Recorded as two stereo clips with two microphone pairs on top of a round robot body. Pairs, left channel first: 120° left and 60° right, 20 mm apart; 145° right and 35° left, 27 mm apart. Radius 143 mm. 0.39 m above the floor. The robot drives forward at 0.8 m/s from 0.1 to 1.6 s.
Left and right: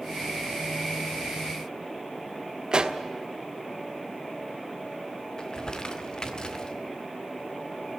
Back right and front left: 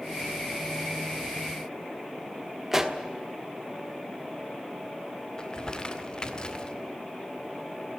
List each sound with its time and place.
2.7 s a pop: 40° right, 1.7 m
5.4 s crumpling: 165° left, 2.0 m